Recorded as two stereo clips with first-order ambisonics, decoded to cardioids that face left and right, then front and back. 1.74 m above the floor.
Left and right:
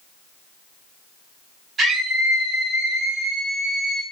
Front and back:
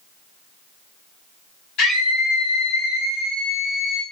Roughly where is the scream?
Ahead.